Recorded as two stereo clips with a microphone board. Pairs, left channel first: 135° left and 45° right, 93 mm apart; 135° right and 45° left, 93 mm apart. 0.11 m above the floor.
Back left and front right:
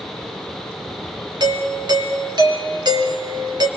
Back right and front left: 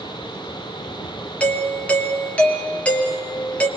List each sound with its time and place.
1.4 s a doorbell: 60° right, 2.5 m